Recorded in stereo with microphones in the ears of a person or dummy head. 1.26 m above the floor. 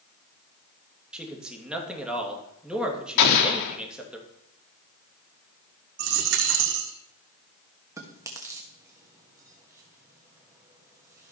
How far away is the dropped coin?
About 1.5 m.